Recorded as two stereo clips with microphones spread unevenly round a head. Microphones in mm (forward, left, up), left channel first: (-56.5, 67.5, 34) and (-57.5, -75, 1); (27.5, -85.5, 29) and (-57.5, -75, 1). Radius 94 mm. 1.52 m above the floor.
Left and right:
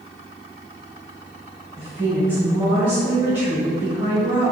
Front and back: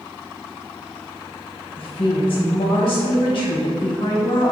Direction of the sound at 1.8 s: 10° right.